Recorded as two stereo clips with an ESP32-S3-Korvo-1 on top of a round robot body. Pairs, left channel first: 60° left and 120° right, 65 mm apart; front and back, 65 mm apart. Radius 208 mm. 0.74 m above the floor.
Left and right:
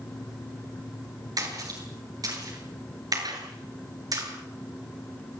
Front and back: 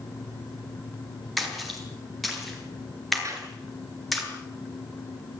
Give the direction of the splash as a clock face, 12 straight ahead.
3 o'clock.